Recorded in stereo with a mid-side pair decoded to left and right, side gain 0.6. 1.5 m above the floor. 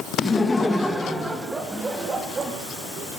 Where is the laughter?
25° left, 2.0 m; by 2.5 s 30° right, 3 m.